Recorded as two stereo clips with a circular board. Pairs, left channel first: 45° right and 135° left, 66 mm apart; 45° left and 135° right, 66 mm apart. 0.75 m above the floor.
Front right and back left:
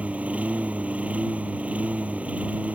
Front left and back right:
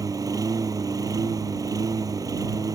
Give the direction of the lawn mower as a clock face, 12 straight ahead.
5 o'clock.